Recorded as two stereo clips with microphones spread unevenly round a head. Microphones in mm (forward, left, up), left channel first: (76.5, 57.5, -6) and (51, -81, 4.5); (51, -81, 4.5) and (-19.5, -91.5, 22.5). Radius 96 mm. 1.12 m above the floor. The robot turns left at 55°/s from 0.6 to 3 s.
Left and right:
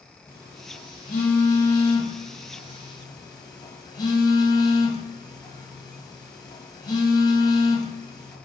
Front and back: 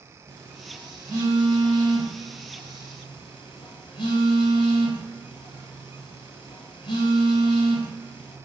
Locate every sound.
0.3 s a phone buzzing: 155° left, 2 m; by 8.4 s 20° left, 2 m